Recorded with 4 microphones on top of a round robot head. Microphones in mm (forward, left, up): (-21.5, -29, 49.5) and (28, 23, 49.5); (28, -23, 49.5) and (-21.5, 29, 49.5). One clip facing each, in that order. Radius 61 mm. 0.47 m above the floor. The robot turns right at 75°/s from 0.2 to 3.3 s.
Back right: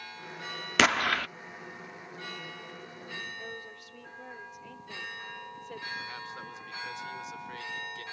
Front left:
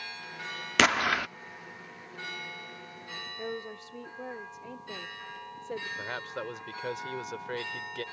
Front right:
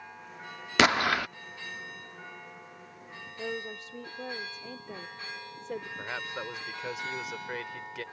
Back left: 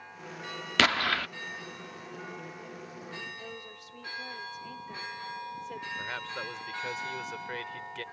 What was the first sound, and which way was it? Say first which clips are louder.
An explosion: even, front right 3 dB; 45° right.